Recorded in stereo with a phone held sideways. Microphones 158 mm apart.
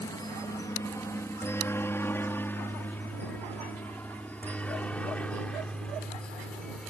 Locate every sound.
0.0 s a helicopter: 20° left (ahead or behind); by 6.9 s 5° left (ahead or behind)